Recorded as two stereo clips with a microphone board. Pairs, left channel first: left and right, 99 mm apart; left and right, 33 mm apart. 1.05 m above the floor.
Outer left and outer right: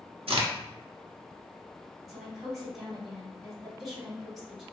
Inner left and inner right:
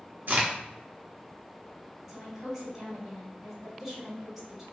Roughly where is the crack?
Right.